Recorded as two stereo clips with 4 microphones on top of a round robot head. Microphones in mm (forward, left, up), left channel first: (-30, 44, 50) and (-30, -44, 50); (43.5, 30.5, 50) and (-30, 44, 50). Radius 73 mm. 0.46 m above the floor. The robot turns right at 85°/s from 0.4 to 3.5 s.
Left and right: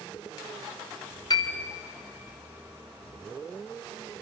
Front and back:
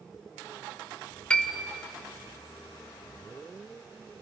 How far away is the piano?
About 2.0 m.